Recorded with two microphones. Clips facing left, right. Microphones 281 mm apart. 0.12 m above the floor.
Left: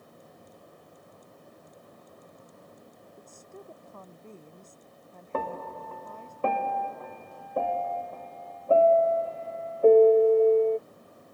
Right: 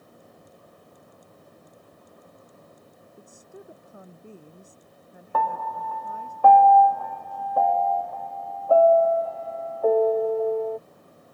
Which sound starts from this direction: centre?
A woman speaking, at 3.1 s.